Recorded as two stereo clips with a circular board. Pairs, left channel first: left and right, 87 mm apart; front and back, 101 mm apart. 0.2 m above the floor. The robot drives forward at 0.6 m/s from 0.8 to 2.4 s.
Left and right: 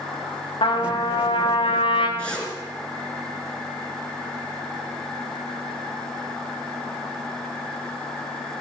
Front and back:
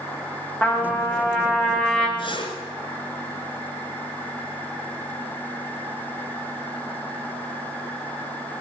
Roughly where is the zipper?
Ahead.